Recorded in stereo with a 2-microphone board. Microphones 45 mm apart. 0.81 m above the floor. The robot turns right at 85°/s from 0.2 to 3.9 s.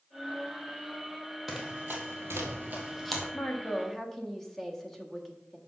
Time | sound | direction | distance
1.5 | running footsteps | 5° right (ahead or behind) | 1.8 m
3.3 | a woman speaking | 125° left | 1.3 m